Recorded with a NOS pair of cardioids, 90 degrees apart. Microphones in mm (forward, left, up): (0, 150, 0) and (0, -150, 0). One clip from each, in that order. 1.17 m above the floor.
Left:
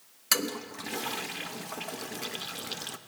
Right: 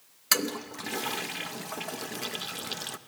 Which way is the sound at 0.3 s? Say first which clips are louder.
Right 1 dB; 15° right.